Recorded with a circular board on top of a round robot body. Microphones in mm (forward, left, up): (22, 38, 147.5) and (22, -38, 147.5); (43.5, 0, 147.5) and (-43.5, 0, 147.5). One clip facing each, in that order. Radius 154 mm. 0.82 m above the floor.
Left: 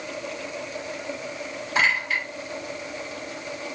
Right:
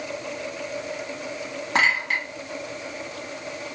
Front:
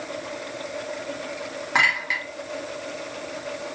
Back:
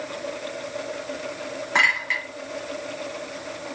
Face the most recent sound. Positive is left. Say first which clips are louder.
# right 1 dB, even
turn(degrees=-80)